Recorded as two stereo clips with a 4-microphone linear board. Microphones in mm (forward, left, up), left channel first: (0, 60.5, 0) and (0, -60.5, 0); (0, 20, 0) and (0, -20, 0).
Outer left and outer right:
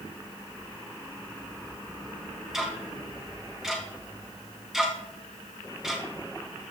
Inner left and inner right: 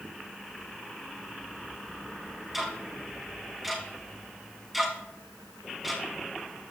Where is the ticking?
5° right (ahead or behind), 2.5 m.